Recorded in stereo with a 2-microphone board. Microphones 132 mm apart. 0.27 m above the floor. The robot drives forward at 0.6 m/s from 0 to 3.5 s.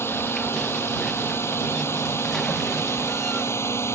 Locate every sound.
0.0 s a drone: 20° left (ahead or behind)